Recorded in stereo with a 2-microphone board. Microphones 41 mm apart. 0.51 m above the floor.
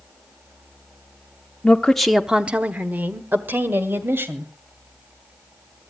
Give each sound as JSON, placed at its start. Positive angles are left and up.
{"t": 1.6, "sound": "a woman speaking", "side_deg": 30, "distance_m": 0.8}